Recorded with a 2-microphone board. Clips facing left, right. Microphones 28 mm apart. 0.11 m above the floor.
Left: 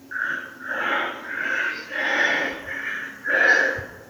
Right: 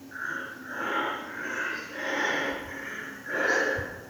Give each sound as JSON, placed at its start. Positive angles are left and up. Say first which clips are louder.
{"t": 0.1, "sound": "breathing", "louder": "left 7 dB", "side_deg": 40, "distance_m": 1.7}